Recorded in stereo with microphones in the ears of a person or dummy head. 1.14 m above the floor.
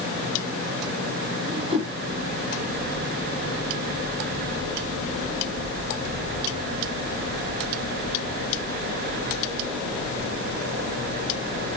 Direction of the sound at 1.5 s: 25° right (ahead or behind).